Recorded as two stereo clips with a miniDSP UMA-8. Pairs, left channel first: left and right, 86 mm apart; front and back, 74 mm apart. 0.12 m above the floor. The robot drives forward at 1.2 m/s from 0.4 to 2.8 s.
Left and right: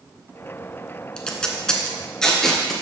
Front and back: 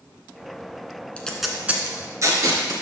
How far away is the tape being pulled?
About 1.0 m.